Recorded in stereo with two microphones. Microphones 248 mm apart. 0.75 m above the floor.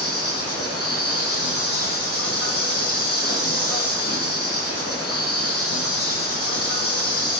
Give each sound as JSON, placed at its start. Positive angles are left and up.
{"t": 0.0, "sound": "an insect", "side_deg": 70, "distance_m": 1.4}